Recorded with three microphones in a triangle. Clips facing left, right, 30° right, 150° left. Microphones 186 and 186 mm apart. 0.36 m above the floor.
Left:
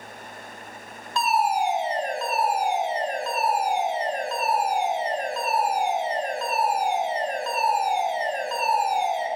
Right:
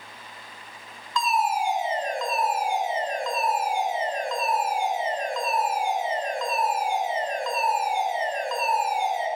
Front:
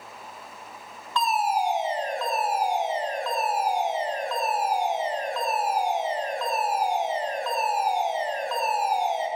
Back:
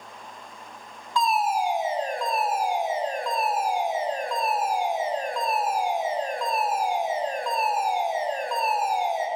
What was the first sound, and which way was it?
A fire alarm, 80° left.